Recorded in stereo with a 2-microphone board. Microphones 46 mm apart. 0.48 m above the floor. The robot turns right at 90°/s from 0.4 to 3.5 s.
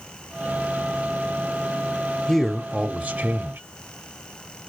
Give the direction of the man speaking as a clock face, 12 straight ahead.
7 o'clock.